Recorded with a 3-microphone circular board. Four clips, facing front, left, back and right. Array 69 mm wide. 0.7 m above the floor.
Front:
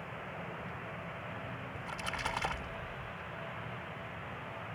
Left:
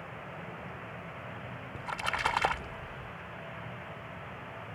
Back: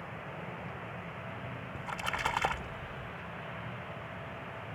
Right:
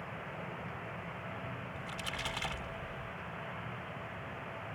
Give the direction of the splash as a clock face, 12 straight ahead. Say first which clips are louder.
Left 12 dB, back 5 dB; 8 o'clock.